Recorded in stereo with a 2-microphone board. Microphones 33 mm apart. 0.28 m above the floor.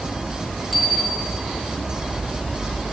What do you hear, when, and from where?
0.7 s a bicycle bell: 10° left (ahead or behind), 7 m